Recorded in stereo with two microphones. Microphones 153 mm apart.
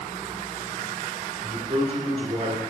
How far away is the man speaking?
About 2.5 m.